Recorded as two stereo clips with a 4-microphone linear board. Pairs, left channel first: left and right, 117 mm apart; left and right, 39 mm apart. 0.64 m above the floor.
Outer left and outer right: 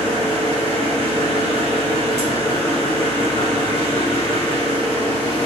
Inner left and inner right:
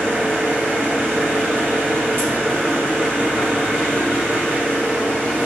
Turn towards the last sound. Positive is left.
turn(degrees=-75)  # may be behind; listen again after turning